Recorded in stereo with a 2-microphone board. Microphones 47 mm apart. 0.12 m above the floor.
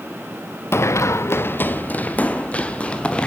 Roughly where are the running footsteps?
Left.